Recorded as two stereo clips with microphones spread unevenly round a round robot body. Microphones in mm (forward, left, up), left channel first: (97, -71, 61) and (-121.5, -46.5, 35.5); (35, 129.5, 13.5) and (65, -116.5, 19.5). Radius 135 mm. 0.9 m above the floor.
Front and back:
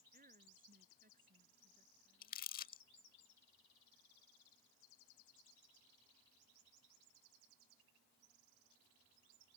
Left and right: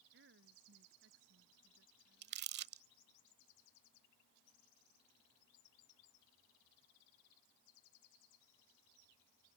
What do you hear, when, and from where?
0.1 s a woman speaking: 135° right
2.2 s crumpling: 45° right